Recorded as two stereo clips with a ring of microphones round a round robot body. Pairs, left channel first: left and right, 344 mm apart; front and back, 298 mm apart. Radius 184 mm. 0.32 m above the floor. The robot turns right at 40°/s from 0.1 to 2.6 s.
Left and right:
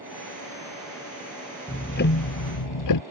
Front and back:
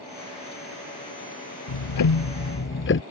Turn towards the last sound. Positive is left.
turn(degrees=50)